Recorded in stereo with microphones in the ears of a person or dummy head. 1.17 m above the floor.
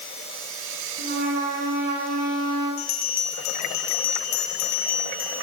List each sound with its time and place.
1.0 s a trumpet: 50° right (ahead or behind), 9 m
2.8 s a bell: 50° left (ahead or behind), 3.5 m